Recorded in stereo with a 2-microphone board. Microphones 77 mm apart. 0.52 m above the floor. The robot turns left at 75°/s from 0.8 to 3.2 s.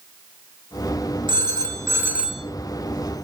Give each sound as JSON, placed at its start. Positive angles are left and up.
{"t": 1.3, "sound": "a phone ringing", "azimuth_deg": -95, "distance_m": 3.0}